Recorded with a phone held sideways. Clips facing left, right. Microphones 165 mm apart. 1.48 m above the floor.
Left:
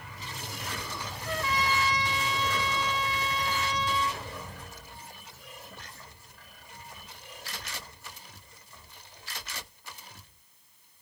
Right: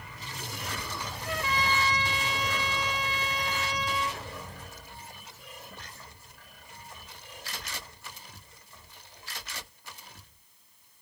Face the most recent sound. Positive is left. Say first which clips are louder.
# left 1 dB
turn(degrees=-10)  # may be behind; listen again after turning